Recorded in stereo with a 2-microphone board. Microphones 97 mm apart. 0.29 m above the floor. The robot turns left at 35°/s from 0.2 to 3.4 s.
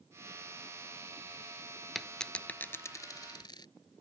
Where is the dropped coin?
Centre (ahead or behind); by 3.7 s 50° left (ahead or behind).